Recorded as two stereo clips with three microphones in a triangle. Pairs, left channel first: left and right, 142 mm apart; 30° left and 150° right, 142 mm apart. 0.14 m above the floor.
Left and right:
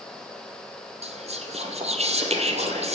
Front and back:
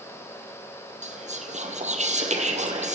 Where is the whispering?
125° right, 3.5 m.